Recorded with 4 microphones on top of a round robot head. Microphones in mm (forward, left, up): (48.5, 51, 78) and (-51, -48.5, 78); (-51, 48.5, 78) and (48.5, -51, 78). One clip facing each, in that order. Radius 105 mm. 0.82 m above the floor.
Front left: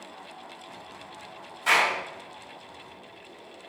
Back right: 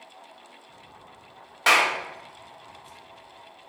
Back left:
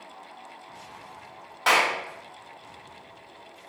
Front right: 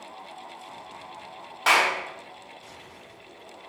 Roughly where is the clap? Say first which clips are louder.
Back right 2 dB, even; behind right.